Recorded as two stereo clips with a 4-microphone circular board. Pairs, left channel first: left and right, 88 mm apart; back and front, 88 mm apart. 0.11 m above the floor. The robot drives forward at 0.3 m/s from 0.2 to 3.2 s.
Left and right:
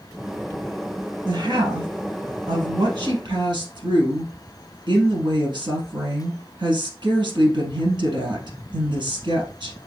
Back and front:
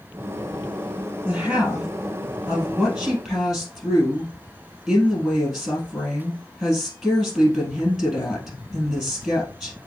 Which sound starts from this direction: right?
A woman speaking, at 1.2 s.